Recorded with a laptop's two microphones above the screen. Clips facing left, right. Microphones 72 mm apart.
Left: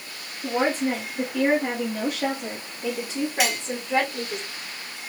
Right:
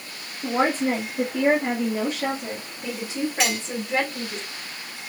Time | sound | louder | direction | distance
0.4 | a woman speaking | right 1 dB | 50° right (ahead or behind) | 1.1 m
3.4 | cutlery clinking | even | 10° left (ahead or behind) | 1.7 m